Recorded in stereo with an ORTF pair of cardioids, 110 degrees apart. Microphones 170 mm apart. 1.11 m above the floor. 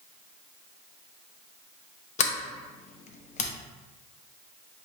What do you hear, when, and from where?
2.2 s a sliding door: 50° left, 0.7 m